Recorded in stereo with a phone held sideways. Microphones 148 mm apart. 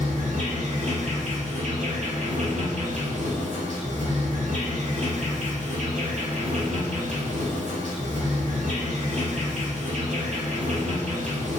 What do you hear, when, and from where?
0.0 s an insect: 55° right (ahead or behind), 0.8 m